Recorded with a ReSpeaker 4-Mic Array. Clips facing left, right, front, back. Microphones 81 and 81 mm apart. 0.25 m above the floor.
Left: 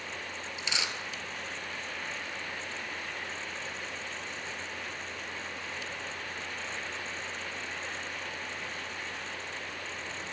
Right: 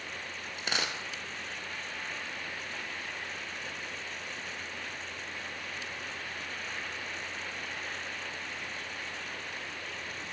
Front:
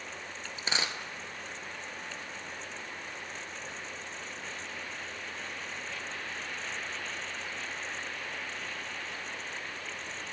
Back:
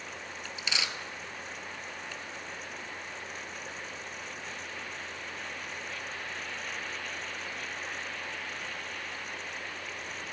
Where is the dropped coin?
55° right, 0.7 m.